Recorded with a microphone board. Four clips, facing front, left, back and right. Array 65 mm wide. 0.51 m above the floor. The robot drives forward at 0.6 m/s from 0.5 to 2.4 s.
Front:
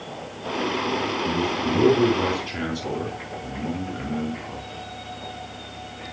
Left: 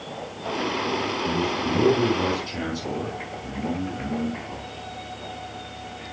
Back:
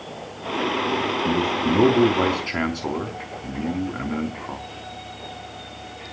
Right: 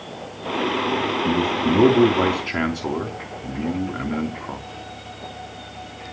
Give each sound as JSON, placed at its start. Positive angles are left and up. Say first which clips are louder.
{"t": 1.2, "sound": "a man speaking", "louder": "right 5 dB, back 4 dB", "azimuth_deg": -130, "distance_m": 4.0}